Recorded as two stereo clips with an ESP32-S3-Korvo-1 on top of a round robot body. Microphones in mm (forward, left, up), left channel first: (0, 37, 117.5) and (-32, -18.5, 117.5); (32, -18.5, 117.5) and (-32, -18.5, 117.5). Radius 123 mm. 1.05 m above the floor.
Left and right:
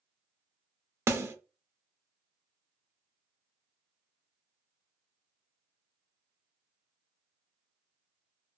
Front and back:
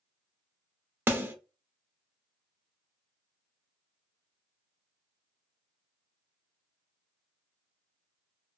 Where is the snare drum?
140° right, 1.0 m.